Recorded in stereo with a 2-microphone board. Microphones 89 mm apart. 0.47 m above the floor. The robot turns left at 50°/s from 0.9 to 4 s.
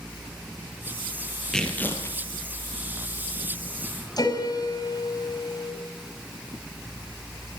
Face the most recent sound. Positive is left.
turn(degrees=45)  # may be behind; listen again after turning